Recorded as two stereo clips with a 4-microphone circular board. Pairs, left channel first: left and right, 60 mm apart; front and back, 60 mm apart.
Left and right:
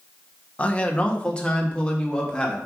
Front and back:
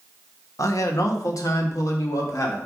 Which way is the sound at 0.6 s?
20° left.